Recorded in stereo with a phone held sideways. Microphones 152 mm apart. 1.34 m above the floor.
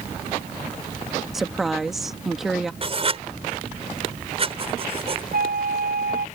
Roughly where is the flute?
Right.